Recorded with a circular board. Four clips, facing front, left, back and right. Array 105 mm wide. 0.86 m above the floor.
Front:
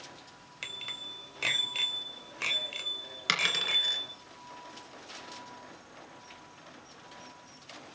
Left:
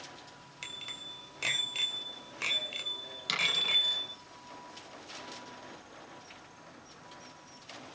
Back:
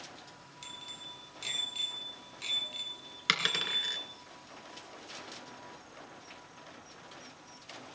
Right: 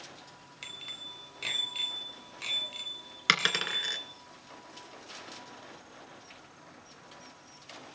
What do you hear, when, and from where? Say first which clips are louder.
0.6 s a bicycle bell: left 2 dB, front 5 dB; 5° left, 2.5 m; by 4.2 s 50° left, 3 m
3.3 s a dropped coin: right 6 dB, front 1 dB; 95° right, 2.5 m